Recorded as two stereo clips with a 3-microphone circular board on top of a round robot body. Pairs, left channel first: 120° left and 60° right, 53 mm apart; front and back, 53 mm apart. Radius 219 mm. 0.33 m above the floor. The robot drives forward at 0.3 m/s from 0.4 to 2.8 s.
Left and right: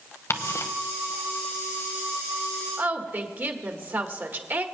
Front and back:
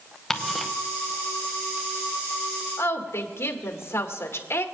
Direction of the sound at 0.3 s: 85° left.